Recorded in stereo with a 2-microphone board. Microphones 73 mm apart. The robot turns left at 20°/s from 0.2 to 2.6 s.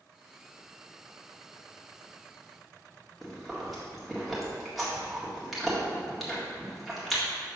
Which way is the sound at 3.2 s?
Centre (ahead or behind).